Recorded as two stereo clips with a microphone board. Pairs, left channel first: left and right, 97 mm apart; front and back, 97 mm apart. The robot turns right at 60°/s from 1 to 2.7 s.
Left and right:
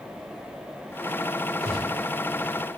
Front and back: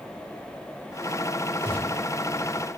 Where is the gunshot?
30° right, 3.5 m; by 2.0 s 5° right, 3.5 m.